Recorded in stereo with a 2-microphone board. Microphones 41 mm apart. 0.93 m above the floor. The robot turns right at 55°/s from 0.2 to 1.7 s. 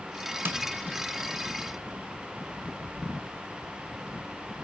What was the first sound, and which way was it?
Tapping, 65° right (ahead or behind).